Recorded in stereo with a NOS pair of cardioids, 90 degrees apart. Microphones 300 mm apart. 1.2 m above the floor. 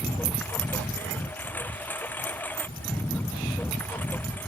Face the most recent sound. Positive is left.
turn(degrees=5)